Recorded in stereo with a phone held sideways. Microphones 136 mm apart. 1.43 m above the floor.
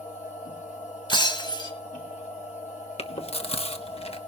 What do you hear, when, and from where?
0.0 s a machine running: 70° left (ahead or behind), 2 m
1.1 s breaking glass: 35° left (ahead or behind), 1.8 m
3.0 s chewing: 50° left (ahead or behind), 1.1 m